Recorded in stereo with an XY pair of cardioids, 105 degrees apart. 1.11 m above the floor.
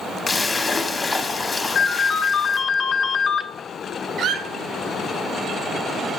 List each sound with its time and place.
0.3 s a splash: 25° left, 0.9 m
1.8 s a ringtone: 55° left, 0.7 m
4.2 s a squeak: 70° right, 0.6 m